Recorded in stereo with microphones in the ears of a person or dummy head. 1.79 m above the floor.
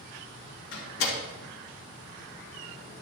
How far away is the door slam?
About 2.5 m.